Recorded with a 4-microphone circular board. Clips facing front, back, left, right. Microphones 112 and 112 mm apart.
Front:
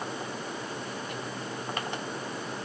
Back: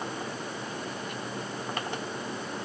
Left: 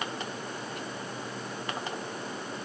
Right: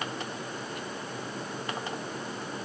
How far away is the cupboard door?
No cupboard door in this recording.